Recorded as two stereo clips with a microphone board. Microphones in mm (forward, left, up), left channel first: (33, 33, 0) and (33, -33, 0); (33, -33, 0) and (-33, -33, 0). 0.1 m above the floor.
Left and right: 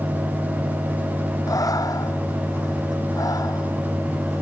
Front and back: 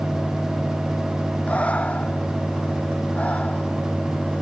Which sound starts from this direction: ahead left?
Breathing, at 1.5 s.